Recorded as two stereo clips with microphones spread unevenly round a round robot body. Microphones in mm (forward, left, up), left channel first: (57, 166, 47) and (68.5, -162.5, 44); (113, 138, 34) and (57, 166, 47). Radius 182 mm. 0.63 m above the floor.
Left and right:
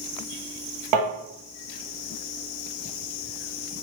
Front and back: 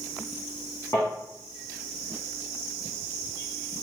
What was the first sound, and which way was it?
Tapping, 110° right.